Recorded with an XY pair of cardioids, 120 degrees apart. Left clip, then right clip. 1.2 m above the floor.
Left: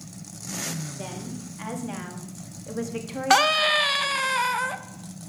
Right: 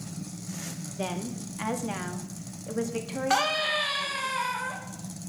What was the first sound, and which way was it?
A woman speaking, 35° right.